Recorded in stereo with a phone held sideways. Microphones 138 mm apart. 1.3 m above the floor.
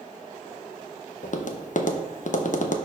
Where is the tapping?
60° left (ahead or behind), 0.7 m.